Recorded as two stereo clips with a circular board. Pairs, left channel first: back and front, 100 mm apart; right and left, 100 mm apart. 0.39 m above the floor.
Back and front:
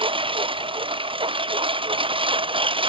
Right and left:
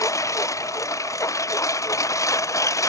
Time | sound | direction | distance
0.0 | a lawn mower | 30° right | ?